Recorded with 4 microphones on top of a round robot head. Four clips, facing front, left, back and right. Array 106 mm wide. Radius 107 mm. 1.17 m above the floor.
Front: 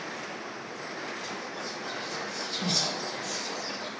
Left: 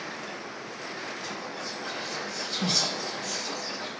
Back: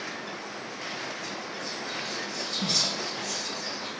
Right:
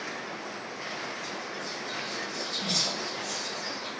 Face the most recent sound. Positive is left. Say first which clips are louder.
# left 1 dB, even
turn(degrees=90)